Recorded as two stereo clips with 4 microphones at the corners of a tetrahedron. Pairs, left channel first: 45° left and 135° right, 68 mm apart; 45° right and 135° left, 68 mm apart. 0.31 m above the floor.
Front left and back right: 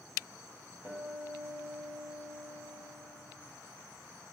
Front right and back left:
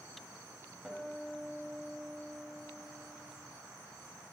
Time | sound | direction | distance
0.8 | a guitar | 145° right | 1.6 m